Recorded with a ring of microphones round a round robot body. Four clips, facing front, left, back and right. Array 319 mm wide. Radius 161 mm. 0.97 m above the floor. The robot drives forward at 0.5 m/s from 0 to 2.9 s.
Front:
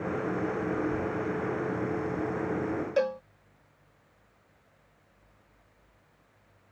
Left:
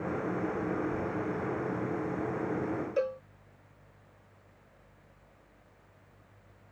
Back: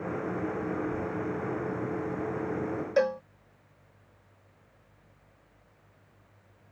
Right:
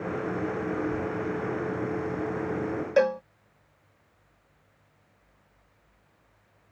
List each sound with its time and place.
3.0 s a cowbell: 100° right